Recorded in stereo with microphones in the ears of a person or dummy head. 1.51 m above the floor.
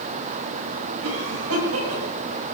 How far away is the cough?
About 10 m.